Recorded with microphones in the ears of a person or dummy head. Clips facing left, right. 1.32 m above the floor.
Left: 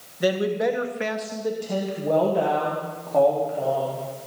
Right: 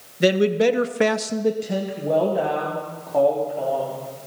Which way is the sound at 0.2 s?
30° right (ahead or behind).